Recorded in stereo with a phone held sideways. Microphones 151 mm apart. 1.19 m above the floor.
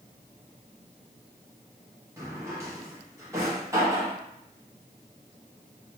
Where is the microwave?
I don't hear a microwave.